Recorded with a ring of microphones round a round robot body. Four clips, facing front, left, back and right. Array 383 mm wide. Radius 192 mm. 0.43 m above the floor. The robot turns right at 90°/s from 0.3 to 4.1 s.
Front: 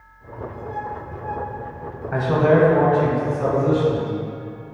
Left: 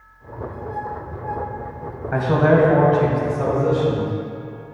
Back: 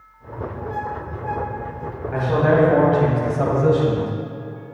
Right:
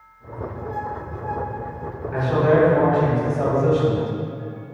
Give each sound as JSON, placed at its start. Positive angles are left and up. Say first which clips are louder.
{"t": 2.1, "sound": "a man speaking", "louder": "left 2 dB, front 1 dB", "azimuth_deg": 70, "distance_m": 3.0}